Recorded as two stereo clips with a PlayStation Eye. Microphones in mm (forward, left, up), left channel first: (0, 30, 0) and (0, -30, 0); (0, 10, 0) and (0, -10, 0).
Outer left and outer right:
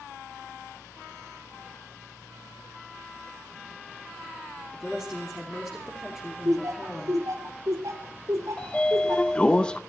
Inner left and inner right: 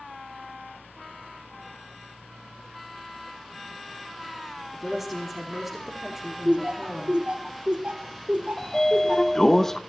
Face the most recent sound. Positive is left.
turn(degrees=15)  # may be behind; listen again after turning